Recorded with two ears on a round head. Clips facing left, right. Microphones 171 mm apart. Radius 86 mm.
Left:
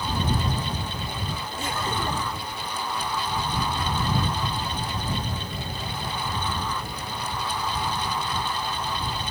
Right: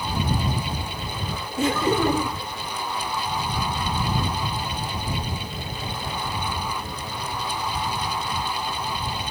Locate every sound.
1.6 s laughter: 70° right (ahead or behind)